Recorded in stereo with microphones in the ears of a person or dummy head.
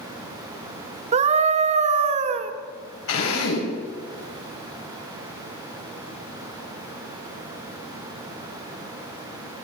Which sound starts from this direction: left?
A drill, at 3.1 s.